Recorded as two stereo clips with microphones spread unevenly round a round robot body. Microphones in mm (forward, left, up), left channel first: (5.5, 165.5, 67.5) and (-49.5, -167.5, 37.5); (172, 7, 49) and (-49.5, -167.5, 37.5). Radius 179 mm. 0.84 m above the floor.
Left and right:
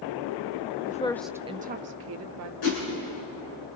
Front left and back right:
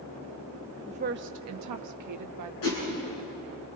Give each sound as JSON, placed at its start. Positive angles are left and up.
{"t": 0.9, "sound": "a woman speaking", "azimuth_deg": 145, "distance_m": 0.7}
{"t": 2.6, "sound": "a whoosh", "azimuth_deg": 60, "distance_m": 8.5}